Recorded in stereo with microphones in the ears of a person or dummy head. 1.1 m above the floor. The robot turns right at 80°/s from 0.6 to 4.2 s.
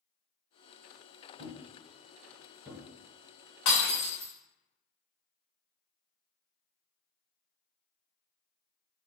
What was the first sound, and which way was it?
A thud, 60° right (ahead or behind).